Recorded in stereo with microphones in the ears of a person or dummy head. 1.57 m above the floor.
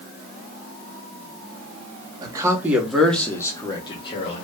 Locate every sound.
2.2 s a man speaking: 25° right (ahead or behind), 0.9 m; by 4.4 s 35° left (ahead or behind), 1.3 m